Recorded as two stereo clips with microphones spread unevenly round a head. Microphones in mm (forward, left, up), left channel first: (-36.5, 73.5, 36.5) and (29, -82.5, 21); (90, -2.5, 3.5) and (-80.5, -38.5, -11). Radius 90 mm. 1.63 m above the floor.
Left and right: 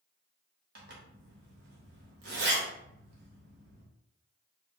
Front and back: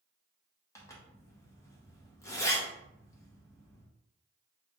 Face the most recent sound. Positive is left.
turn(degrees=-50)